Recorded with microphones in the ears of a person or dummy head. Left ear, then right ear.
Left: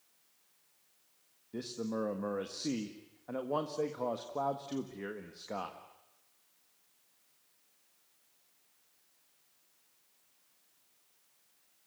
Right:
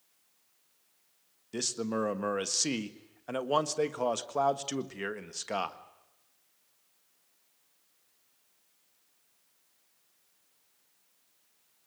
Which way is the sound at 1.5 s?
65° right (ahead or behind).